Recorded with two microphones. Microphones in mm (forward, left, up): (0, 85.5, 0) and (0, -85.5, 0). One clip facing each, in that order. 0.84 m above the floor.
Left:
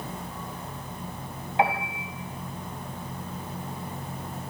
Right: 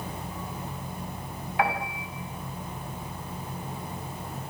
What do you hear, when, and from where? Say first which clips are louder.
1.6 s a piano: left 2 dB; 25° left (ahead or behind), 5 m